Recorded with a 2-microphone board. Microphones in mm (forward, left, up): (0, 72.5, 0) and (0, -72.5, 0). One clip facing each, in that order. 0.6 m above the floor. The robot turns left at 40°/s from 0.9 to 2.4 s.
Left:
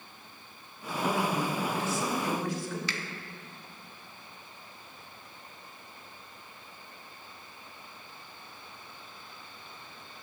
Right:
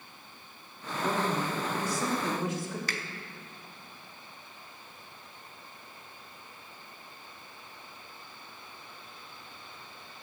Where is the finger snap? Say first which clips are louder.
Even; 45° right (ahead or behind), 0.7 m.